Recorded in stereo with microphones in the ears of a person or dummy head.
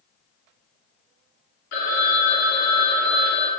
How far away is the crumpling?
I don't hear crumpling.